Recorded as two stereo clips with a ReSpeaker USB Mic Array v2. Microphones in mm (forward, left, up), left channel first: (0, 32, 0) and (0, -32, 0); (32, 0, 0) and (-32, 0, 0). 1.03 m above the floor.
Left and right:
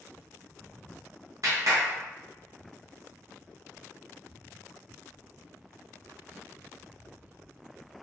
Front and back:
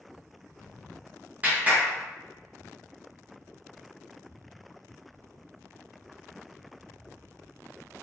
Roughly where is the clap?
Behind right.